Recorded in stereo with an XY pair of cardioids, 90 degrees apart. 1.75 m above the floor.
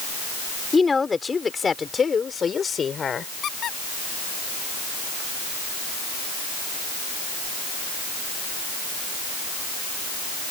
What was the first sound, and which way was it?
A woman speaking, 25° left.